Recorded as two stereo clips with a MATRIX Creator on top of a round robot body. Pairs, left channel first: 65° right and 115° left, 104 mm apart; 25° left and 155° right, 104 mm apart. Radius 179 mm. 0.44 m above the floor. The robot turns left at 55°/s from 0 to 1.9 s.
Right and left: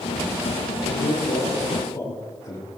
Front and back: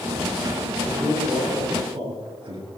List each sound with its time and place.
0.9 s a man speaking: 70° right, 9 m; by 2.7 s 130° right, 9 m